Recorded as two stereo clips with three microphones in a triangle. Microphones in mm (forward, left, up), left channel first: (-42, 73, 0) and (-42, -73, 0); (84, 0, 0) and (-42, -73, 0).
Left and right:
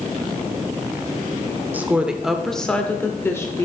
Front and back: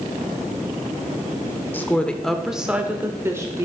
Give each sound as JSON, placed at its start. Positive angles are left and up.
{"t": 1.7, "sound": "a woman speaking", "azimuth_deg": -30, "distance_m": 0.9}